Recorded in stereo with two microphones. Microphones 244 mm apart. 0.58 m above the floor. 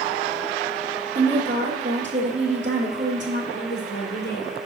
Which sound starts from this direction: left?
A woman speaking, at 3.5 s.